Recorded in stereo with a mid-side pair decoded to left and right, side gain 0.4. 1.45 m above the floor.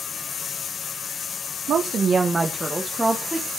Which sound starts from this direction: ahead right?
A woman speaking, at 1.7 s.